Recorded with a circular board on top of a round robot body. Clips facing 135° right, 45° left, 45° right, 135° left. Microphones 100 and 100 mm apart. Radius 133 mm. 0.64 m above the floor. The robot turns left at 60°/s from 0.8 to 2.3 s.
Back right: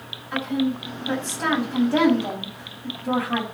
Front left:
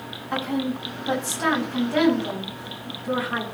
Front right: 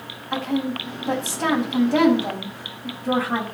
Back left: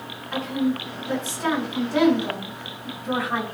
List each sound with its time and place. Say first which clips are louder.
0.3 s a woman speaking: back right 2 dB, even; 10° right, 6 m; by 3.4 s 100° right, 6 m